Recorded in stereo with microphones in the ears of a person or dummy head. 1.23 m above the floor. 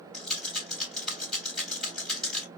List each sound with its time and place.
0.1 s a rattle: centre (ahead or behind), 2.5 m